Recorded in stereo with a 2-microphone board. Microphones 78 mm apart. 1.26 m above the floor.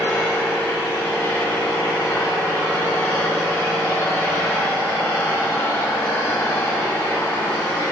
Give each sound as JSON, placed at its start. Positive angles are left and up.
{"t": 0.0, "sound": "an engine running", "side_deg": 35, "distance_m": 3.0}